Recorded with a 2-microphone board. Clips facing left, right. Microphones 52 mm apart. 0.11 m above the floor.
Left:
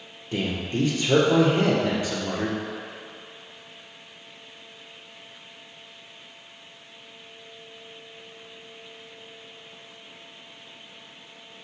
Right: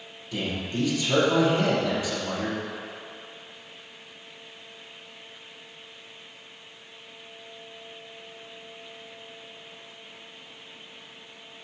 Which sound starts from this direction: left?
A man speaking, at 0.3 s.